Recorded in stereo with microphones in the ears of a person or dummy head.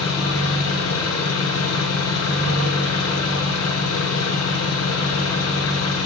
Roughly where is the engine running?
Left.